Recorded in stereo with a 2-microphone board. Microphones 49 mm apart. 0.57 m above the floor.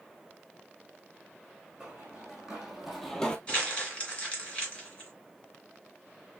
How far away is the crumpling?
About 3.5 m.